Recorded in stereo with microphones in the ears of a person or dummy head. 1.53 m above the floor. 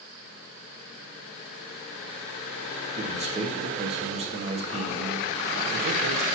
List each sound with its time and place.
3.0 s a man speaking: 40° right (ahead or behind), 1.3 m